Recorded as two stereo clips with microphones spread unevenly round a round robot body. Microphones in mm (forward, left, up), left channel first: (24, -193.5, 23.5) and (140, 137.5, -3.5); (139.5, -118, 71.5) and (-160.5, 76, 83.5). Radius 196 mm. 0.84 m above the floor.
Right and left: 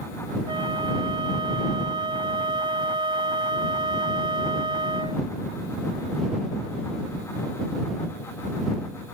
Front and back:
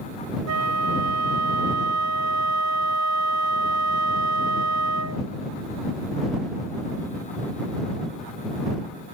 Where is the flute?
135° left.